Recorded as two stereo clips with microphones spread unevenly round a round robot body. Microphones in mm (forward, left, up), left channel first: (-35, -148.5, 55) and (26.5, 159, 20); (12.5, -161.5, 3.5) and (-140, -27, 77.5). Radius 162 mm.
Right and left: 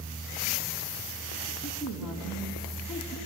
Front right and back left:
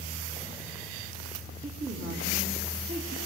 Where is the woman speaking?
165° left, 3.5 m.